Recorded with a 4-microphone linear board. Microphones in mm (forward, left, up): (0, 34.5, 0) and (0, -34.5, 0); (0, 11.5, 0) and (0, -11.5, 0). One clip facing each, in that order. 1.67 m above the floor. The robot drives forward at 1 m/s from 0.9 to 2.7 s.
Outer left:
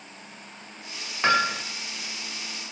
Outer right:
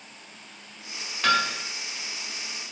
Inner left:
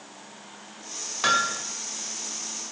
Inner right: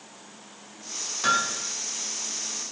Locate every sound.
1.2 s hammering: 25° left (ahead or behind), 2.5 m